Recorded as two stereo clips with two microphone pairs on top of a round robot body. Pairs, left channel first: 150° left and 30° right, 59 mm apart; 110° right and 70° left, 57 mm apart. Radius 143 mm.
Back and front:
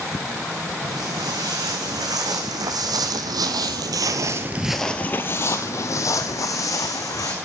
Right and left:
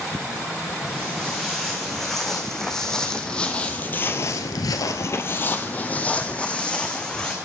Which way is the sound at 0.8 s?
20° right.